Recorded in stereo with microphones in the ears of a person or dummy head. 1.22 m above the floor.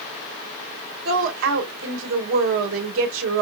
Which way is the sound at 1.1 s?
70° right (ahead or behind).